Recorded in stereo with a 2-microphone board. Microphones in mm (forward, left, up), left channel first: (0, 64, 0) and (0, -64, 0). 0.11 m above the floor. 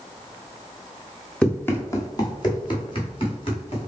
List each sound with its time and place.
1.4 s running footsteps: 10° left (ahead or behind), 1.0 m; by 3.9 s 50° left (ahead or behind), 2.5 m